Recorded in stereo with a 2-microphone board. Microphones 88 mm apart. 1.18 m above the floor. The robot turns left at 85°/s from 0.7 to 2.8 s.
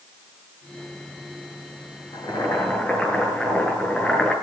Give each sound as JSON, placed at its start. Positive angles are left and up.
{"t": 2.1, "sound": "boiling", "azimuth_deg": 65, "distance_m": 8.0}